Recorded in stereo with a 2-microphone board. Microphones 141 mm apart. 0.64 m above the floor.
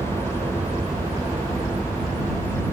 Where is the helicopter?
35° right (ahead or behind).